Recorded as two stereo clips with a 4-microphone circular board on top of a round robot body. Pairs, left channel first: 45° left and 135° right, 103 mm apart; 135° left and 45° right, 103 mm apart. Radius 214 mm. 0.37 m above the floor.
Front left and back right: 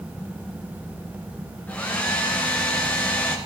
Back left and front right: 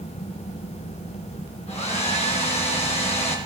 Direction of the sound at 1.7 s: 120° left.